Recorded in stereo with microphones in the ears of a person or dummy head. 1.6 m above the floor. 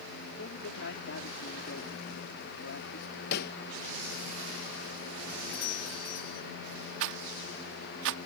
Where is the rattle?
70° right (ahead or behind).